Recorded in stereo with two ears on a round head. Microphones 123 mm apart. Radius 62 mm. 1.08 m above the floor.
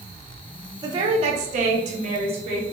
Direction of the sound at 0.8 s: 30° right (ahead or behind).